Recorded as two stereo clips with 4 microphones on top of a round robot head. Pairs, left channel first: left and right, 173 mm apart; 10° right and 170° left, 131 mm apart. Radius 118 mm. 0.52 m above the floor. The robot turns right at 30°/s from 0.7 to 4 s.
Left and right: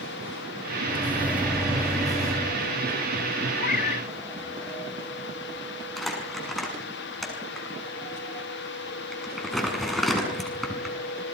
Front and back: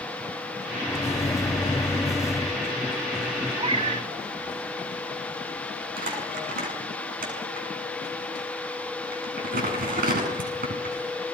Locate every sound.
0.9 s a microwave: 30° right, 0.9 m; by 2.6 s 20° left, 0.9 m
3.6 s a cat meowing: 120° left, 1.0 m; by 4.1 s 135° left, 1.0 m
6.0 s crumpling: straight behind, 7 m